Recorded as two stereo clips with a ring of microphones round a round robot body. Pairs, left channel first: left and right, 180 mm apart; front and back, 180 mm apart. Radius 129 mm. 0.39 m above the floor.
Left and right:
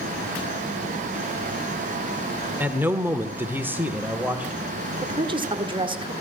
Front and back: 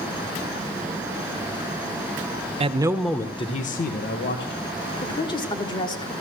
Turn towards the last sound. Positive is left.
turn(degrees=-50)